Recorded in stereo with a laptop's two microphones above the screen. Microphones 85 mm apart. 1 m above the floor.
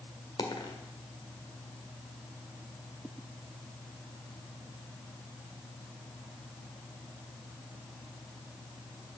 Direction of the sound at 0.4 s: 70° left (ahead or behind).